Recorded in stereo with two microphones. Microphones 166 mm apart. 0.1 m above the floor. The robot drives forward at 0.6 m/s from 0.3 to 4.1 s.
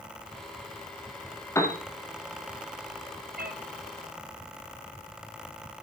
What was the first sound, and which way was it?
A piano, 15° left (ahead or behind).